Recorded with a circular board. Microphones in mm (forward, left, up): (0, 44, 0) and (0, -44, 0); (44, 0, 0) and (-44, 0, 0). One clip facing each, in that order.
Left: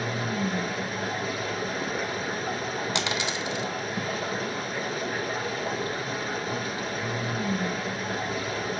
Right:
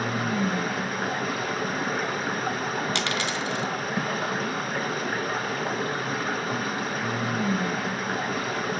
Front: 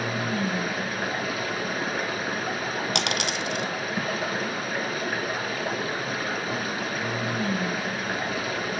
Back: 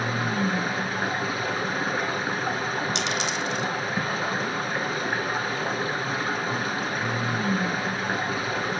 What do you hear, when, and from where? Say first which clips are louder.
0.0 s running water: right 3 dB, back 1 dB; 120° right, 1.2 m
3.0 s a dropped coin: right 1 dB, even; 15° left, 1.2 m